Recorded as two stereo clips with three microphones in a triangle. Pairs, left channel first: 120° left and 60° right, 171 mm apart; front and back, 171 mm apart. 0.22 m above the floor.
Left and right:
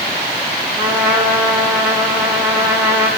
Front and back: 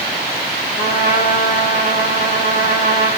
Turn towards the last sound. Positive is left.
turn(degrees=15)